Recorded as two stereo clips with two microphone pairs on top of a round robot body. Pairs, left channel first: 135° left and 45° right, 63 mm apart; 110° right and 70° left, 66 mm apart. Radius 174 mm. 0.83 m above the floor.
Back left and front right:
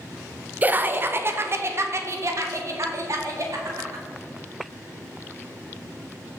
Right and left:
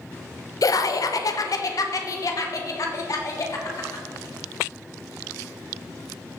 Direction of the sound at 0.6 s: 105° right.